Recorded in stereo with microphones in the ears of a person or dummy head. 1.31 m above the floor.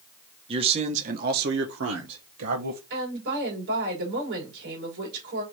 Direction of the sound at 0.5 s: 35° right (ahead or behind).